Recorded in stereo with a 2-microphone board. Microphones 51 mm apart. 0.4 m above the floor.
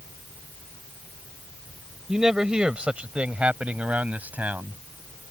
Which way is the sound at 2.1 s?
10° right (ahead or behind).